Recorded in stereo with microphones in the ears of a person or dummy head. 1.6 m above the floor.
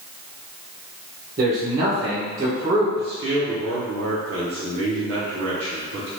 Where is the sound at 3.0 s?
60° right (ahead or behind), 0.7 m.